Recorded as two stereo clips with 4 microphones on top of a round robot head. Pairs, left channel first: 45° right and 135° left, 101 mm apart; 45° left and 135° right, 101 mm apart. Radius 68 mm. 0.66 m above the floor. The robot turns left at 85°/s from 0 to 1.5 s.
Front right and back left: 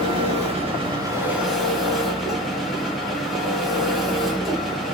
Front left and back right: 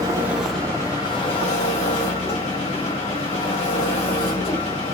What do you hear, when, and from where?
0.0 s an engine running: 175° left, 2.5 m; by 5.0 s 45° left, 2.5 m